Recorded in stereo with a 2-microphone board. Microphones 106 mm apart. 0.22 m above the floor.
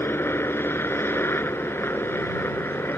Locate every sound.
0.0 s a helicopter: 20° left (ahead or behind)